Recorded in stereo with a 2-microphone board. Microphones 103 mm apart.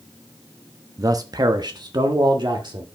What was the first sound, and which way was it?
A man speaking, 35° right (ahead or behind).